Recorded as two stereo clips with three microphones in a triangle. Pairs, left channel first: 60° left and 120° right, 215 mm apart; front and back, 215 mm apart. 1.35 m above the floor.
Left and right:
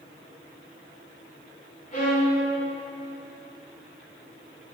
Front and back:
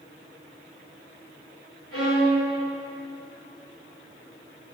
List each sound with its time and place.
1.9 s a violin: 5° left, 3 m